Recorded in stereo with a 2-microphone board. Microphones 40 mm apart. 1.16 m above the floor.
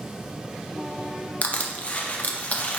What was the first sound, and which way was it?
Crushing, 30° left (ahead or behind).